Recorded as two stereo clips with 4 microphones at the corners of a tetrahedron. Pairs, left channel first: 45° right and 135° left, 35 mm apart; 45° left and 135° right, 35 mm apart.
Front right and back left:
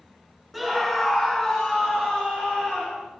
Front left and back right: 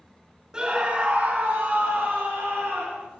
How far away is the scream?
About 1.0 m.